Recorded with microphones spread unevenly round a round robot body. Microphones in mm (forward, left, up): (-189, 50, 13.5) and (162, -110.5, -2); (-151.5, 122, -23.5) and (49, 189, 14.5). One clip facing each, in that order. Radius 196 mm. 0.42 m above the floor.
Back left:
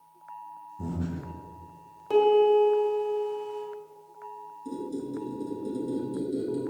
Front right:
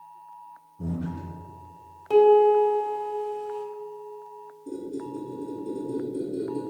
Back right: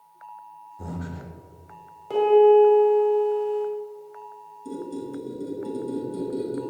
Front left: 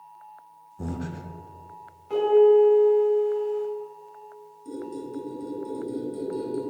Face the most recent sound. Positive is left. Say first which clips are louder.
# even, back right 2 dB
turn(degrees=150)